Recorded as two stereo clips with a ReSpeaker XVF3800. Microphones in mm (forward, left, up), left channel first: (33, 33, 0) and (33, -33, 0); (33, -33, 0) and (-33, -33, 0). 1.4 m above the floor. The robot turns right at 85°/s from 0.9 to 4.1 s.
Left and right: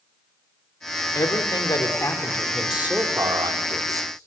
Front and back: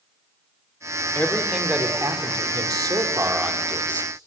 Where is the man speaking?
60° left, 5 m; by 4.3 s 50° right, 5 m.